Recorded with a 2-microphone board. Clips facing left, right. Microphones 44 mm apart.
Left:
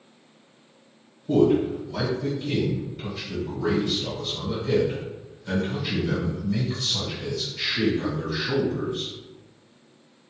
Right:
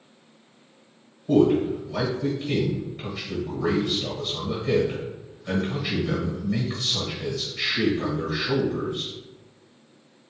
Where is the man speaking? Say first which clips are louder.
Right 1 dB; 15° right (ahead or behind), 1.2 m.